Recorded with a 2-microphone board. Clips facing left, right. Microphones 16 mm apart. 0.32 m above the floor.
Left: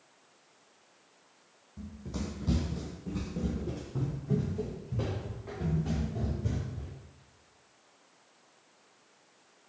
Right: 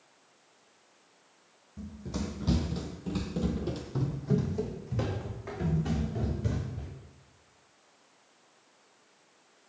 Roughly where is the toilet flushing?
No toilet flushing in this recording.